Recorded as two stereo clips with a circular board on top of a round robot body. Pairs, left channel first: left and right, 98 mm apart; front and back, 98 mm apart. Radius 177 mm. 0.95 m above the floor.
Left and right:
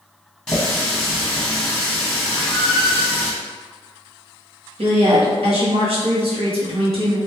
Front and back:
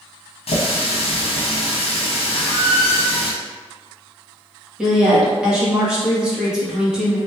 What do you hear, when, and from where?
0.5 s a running tap: 5° left, 0.9 m
2.3 s a squeak: 10° right, 0.5 m
4.8 s a woman speaking: 100° right, 1.7 m